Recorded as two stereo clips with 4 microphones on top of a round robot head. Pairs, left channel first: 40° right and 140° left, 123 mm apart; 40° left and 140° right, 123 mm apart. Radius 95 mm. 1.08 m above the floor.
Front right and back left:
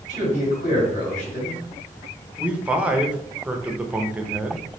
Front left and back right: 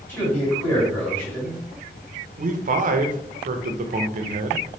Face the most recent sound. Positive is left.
turn(degrees=-140)